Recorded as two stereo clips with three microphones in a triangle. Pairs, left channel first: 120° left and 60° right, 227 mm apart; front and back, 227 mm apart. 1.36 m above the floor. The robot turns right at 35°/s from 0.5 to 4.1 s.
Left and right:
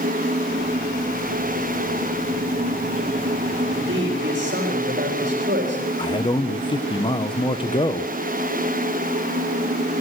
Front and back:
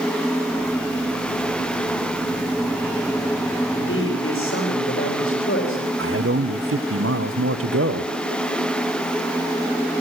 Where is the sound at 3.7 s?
30° right, 4 m; by 5.9 s 20° right, 4 m.